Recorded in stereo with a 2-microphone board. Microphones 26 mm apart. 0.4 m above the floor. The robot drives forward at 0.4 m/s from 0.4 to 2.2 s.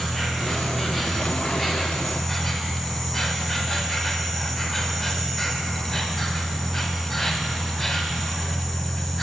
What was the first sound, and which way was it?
An insect, 5° left (ahead or behind).